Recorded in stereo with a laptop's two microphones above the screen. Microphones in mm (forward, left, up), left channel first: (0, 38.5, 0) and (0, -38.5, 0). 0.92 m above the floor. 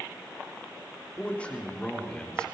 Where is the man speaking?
15° left (ahead or behind), 3 m; by 2.5 s 10° left (ahead or behind), 3.5 m.